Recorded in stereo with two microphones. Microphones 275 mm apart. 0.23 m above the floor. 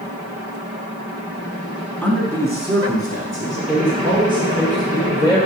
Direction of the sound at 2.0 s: 5° left (ahead or behind).